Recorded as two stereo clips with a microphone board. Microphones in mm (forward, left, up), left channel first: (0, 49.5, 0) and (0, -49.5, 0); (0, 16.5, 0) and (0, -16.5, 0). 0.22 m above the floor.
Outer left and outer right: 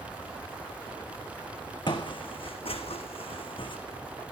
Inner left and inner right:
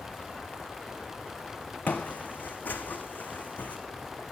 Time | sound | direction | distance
1.9 | footsteps | 50° left (ahead or behind) | 1.1 m